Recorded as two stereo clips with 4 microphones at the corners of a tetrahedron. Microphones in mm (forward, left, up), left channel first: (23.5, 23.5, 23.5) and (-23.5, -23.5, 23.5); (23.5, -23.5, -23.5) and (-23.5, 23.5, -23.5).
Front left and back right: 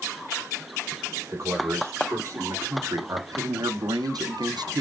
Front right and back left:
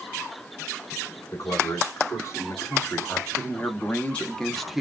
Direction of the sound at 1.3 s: 85° right.